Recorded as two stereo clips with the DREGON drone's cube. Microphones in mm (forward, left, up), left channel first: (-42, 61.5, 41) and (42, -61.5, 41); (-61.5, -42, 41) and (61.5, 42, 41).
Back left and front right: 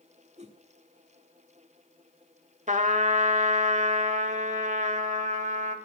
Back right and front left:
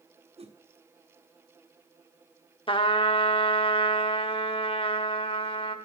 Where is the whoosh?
15° right, 1.1 m.